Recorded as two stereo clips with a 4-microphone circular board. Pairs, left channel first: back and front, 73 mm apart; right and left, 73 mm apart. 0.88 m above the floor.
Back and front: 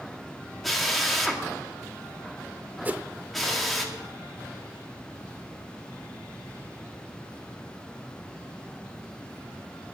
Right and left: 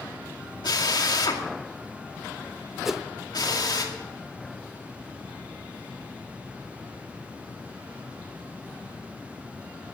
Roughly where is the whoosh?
Ahead.